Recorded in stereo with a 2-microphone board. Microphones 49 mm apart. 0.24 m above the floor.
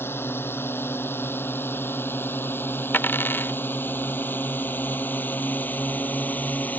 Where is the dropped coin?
45° left (ahead or behind).